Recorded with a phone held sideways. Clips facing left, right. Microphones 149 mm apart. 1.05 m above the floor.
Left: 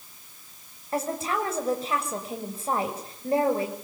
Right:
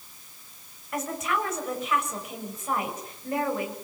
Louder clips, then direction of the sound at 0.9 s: Left 2 dB; 30° left (ahead or behind).